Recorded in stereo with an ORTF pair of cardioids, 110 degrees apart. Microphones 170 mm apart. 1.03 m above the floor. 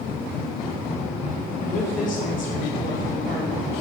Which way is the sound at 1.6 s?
50° left.